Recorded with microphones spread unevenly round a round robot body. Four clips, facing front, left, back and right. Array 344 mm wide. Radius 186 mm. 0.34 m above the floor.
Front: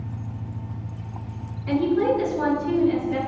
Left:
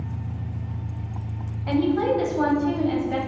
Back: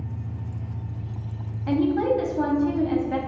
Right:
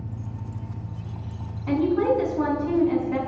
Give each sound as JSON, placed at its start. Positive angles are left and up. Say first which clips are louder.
{"t": 0.0, "sound": "an engine running", "louder": "left 2 dB, front 1 dB", "azimuth_deg": 85, "distance_m": 3.0}
{"t": 1.7, "sound": "a woman speaking", "louder": "even, front 1 dB", "azimuth_deg": 150, "distance_m": 2.5}